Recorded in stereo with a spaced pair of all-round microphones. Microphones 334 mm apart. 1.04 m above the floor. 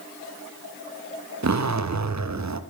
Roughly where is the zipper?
Right.